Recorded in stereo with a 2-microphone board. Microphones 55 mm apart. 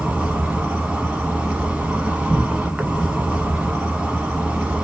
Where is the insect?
20° right (ahead or behind), 0.8 m.